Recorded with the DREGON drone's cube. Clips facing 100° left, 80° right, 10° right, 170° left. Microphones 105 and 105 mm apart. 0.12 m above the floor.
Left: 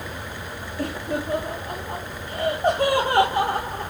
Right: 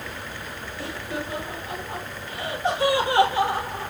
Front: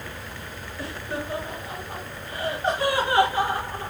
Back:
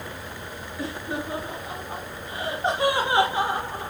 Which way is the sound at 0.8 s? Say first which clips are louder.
Left 5 dB, back 1 dB; 105° left.